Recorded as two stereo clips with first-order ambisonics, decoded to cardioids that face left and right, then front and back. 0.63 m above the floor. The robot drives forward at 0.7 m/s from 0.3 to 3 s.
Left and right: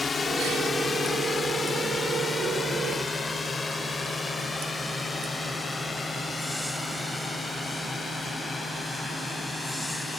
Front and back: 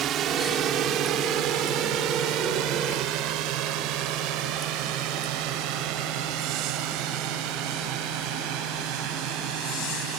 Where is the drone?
155° left; by 10.2 s 170° left.